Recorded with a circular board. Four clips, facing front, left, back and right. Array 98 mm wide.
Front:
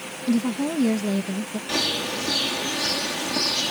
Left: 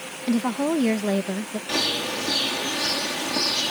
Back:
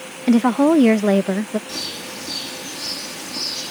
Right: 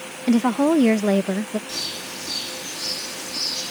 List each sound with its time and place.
0.3 s a woman speaking: 165° right
1.7 s a bird: 55° left